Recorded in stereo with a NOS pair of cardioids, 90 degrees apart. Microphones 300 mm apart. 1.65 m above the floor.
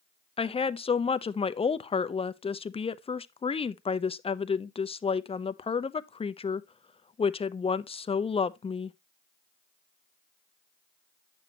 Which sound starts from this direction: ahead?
A woman speaking, at 0.4 s.